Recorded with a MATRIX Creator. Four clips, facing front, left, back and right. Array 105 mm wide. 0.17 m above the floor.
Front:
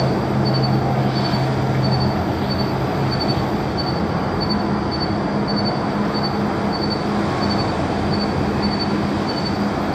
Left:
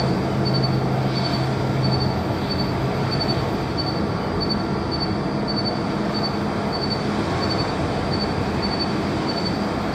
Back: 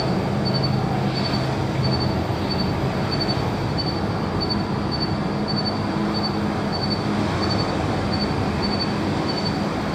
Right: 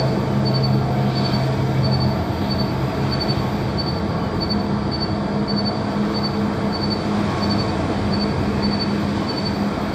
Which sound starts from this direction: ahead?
An insect, at 0.0 s.